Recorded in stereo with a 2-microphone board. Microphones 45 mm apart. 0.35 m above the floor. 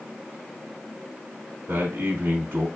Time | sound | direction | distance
1.7 | a man speaking | 50° right (ahead or behind) | 1.2 m